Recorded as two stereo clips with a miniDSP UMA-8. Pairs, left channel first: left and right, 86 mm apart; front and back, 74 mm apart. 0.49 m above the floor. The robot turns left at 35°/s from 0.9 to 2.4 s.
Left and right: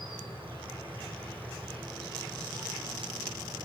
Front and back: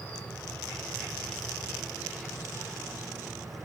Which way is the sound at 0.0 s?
70° right.